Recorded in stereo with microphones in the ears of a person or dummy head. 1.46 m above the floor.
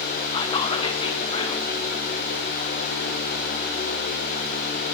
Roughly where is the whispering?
Left.